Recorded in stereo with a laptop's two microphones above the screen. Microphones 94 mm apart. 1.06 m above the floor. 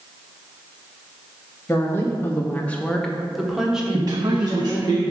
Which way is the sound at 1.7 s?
20° left (ahead or behind).